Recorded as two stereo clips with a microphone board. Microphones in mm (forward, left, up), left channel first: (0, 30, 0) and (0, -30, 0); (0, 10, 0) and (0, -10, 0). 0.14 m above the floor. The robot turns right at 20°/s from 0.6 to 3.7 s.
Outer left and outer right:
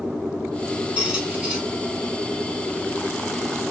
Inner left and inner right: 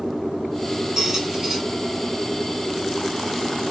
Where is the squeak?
20° right (ahead or behind), 1.0 m; by 1.6 s 15° right (ahead or behind), 1.0 m.